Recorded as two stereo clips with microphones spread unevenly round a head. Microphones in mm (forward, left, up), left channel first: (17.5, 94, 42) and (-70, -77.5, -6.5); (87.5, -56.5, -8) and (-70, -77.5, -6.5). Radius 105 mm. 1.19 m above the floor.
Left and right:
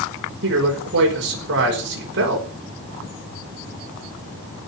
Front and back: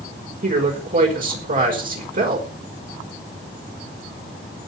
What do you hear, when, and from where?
0.4 s a man speaking: 140° right, 5.5 m